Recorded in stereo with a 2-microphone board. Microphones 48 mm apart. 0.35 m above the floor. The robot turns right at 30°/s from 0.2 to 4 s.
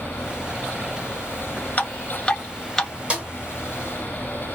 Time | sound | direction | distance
1.8 | dripping | 40° left (ahead or behind) | 1.2 m
3.1 | a snare drum | 25° right (ahead or behind) | 1.7 m